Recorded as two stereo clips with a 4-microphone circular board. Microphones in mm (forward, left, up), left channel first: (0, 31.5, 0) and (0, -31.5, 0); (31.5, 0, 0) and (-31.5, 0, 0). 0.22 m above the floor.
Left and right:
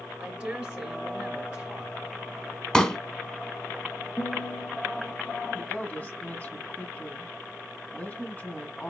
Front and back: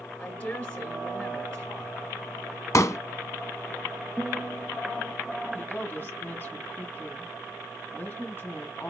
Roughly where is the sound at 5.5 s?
Ahead left.